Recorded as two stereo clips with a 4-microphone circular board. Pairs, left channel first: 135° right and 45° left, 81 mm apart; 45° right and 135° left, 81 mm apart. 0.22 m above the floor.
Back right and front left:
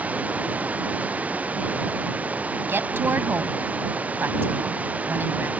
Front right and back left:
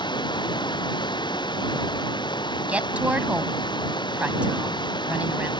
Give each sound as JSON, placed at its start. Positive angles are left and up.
{"t": 0.0, "sound": "running water", "azimuth_deg": -25}
{"t": 2.7, "sound": "a woman speaking", "azimuth_deg": 75}